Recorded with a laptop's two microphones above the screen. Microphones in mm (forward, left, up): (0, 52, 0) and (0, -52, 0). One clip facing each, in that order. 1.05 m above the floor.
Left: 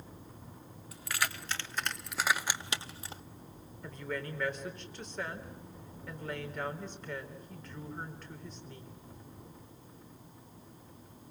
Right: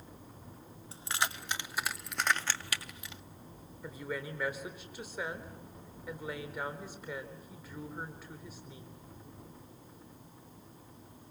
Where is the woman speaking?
10° right (ahead or behind), 3.5 m.